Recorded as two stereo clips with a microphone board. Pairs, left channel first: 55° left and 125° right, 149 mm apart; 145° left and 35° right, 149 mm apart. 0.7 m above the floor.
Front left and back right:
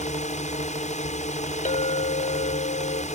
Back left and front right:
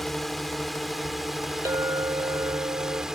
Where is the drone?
55° left; by 3.1 s 50° left.